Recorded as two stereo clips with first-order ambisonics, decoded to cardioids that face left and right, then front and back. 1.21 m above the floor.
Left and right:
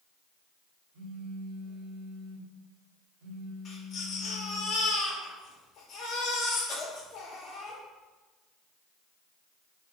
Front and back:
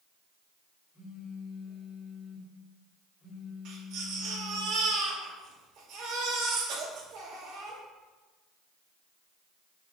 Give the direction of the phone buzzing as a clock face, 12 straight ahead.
2 o'clock.